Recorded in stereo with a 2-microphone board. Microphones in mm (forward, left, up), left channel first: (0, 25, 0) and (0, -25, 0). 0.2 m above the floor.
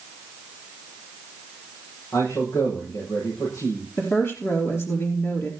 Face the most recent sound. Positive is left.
turn(degrees=50)  # may be behind; listen again after turning